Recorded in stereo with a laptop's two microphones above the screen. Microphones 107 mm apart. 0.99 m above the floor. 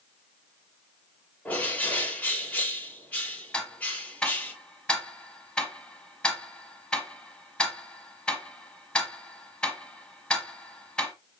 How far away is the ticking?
About 1.3 m.